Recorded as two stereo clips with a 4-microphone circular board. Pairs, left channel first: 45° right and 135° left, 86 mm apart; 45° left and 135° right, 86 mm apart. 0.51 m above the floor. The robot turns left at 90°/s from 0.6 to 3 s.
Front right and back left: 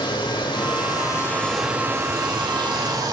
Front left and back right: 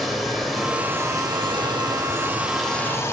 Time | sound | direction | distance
0.0 | running water | 45° right | 1.7 m